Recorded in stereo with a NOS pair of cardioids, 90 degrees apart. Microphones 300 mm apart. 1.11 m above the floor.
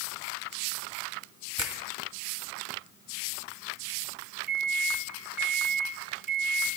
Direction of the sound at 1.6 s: 15° right.